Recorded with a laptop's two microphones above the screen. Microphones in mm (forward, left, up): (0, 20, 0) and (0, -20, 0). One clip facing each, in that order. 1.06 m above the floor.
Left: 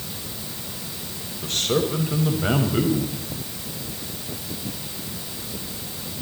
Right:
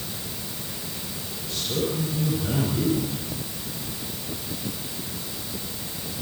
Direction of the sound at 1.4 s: 65° left (ahead or behind).